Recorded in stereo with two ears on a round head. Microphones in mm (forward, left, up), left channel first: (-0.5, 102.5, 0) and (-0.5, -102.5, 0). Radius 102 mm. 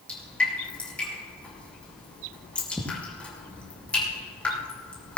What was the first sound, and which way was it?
Dripping, 5° left (ahead or behind).